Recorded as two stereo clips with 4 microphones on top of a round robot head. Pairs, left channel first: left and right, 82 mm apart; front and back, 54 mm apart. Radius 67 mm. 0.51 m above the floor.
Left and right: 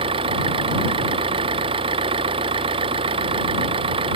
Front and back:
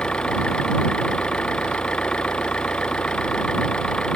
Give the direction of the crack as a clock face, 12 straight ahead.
No crack in this recording.